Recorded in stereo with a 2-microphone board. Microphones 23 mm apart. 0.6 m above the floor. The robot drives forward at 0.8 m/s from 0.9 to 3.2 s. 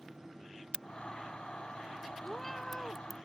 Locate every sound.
0.7 s a crack: 45° right (ahead or behind); by 3.2 s 10° right (ahead or behind)
2.2 s a cat meowing: 10° left (ahead or behind)